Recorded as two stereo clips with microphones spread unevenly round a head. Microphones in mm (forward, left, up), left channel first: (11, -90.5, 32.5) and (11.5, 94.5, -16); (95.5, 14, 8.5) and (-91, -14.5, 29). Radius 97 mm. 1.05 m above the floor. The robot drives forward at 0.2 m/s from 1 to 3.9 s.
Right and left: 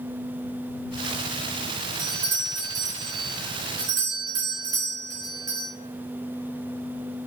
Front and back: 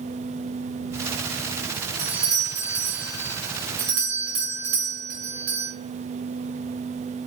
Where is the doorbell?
130° left, 0.9 m; by 5.7 s 150° left, 1.1 m.